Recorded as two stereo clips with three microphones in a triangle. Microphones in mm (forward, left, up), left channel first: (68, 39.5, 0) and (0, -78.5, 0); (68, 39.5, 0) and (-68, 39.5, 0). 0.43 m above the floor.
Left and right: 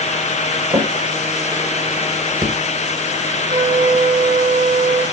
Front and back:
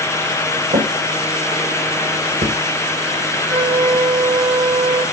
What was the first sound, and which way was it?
A drawer, 165° right.